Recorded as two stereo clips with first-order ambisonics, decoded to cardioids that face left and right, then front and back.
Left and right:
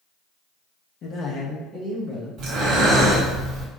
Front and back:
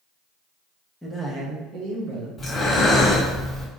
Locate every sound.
1.0 s a man speaking: 90° left, 0.8 m; by 2.3 s straight behind, 1.8 m
2.4 s breathing: 70° right, 1.3 m